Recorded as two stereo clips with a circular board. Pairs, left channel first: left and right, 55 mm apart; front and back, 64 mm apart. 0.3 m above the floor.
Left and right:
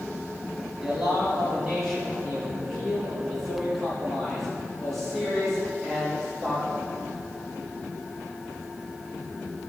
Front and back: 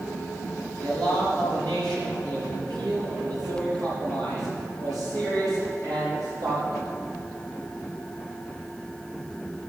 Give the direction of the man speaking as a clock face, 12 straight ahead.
6 o'clock.